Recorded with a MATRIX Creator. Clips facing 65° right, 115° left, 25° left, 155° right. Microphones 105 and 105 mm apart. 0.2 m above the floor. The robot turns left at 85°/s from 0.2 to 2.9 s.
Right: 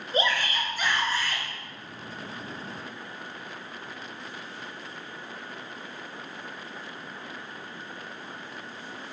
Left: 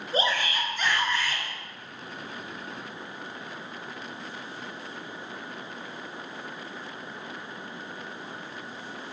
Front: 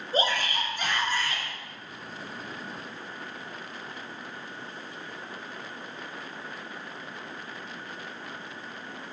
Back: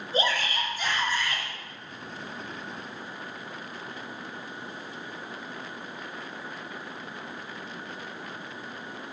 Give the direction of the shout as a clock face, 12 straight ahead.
10 o'clock.